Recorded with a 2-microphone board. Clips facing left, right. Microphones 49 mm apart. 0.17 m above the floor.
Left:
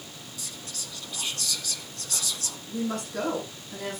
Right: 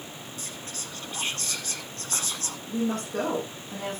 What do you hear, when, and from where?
0.4 s whispering: 40° right (ahead or behind), 1.3 m
2.7 s a woman speaking: 50° right (ahead or behind), 7.5 m